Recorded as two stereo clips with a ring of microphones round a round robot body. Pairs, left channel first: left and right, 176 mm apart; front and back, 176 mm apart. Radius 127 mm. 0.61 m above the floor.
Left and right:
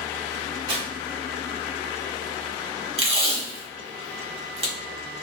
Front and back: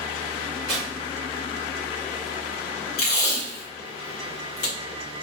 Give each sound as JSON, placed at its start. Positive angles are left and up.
{"t": 0.7, "sound": "tearing paper", "azimuth_deg": -115, "distance_m": 2.0}
{"t": 3.0, "sound": "tape being pulled", "azimuth_deg": -45, "distance_m": 1.4}